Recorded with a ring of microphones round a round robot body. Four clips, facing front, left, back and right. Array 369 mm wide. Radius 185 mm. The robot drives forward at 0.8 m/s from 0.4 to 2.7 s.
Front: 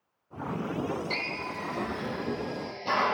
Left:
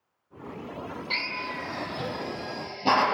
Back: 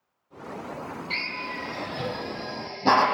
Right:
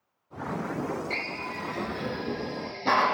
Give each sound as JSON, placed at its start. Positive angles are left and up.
{"t": 1.1, "sound": "a drill", "azimuth_deg": 85, "distance_m": 0.5}